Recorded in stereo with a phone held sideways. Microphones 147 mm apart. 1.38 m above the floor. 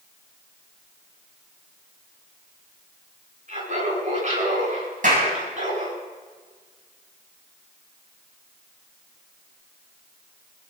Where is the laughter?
60° right (ahead or behind), 9.5 m.